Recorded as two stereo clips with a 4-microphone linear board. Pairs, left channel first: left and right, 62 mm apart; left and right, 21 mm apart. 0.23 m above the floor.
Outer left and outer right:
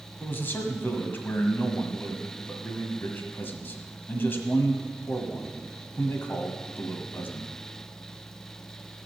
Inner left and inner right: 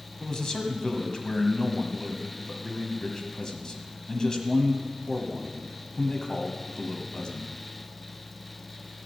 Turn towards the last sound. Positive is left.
turn(degrees=35)  # may be behind; listen again after turning